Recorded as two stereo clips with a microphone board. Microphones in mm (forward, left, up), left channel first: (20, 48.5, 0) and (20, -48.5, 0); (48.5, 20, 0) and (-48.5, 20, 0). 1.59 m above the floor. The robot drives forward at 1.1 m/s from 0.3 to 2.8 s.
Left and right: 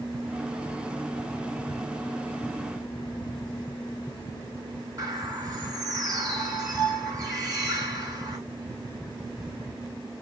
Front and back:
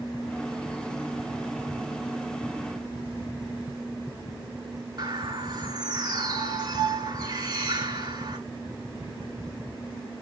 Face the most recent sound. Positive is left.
turn(degrees=-140)